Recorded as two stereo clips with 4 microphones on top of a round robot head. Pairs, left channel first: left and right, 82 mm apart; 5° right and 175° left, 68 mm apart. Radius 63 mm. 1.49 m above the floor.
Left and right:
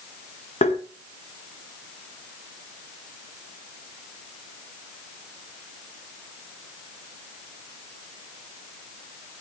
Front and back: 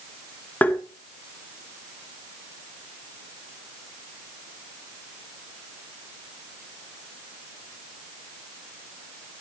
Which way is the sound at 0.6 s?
60° left.